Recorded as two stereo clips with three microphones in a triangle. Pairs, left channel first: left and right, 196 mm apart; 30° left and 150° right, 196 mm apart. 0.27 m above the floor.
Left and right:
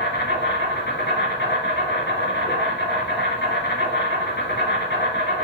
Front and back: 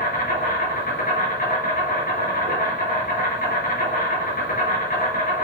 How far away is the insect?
About 4 m.